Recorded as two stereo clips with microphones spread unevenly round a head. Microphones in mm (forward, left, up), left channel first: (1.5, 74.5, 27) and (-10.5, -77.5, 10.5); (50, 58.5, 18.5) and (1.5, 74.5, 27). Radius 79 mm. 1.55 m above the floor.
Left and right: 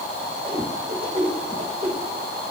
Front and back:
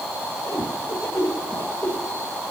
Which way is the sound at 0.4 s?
35° right.